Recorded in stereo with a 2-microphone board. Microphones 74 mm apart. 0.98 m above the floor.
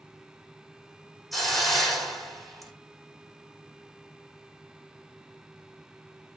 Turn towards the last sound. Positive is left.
turn(degrees=0)  # may be behind; listen again after turning